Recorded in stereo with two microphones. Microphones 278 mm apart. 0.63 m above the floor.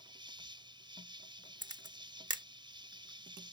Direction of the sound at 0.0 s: 15° right (ahead or behind).